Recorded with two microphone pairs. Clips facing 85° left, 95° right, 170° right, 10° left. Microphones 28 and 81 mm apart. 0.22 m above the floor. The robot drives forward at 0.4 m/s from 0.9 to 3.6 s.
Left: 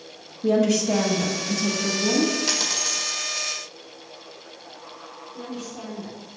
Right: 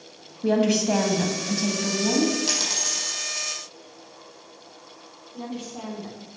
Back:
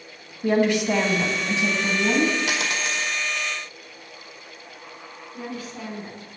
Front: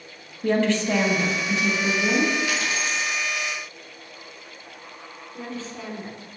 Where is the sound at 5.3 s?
100° right, 2.0 m.